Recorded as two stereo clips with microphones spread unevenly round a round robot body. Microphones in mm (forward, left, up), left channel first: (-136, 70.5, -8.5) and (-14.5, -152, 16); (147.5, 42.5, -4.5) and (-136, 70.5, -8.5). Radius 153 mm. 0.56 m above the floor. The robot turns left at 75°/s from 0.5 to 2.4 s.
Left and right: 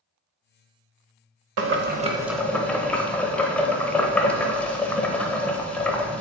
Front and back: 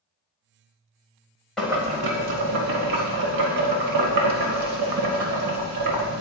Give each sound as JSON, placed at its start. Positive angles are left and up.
{"t": 1.6, "sound": "boiling", "azimuth_deg": -95, "distance_m": 0.9}